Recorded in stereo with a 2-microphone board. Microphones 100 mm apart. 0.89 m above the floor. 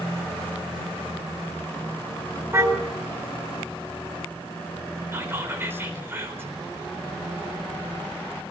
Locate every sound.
2.5 s a car horn: 25° right (ahead or behind), 3.5 m
5.1 s whispering: 20° right (ahead or behind), 4 m